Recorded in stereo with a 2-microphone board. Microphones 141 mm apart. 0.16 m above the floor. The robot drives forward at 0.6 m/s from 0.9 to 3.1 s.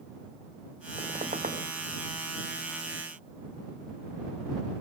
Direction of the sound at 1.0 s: 60° right (ahead or behind).